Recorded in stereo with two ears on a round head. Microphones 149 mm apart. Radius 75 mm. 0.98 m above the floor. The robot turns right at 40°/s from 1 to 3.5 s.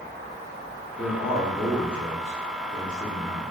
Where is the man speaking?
Straight ahead, 1.3 m; by 3.4 s 100° left, 1.3 m.